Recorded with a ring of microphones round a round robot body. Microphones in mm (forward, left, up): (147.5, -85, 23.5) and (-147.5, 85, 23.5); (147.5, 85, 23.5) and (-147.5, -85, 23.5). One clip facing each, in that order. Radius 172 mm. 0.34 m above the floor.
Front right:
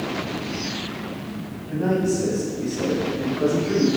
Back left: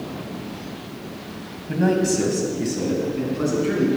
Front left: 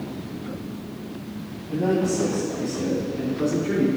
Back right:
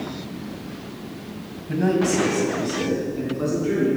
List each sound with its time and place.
1.7 s a man speaking: 170° left, 2 m; by 3.9 s 115° left, 4 m